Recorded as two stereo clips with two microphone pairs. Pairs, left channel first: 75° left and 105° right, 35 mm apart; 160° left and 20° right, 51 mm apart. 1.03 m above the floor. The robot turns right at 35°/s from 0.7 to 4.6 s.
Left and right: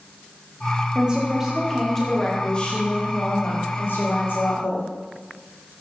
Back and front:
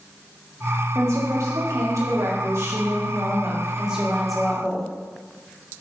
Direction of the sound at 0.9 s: 50° right.